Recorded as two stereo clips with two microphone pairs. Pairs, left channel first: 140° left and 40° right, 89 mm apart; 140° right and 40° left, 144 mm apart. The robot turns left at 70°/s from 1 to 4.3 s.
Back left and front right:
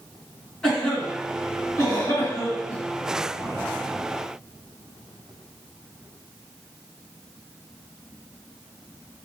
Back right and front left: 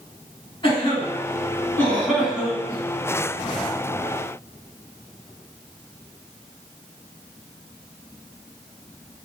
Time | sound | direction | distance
0.6 | a cough | 150° right | 1.9 m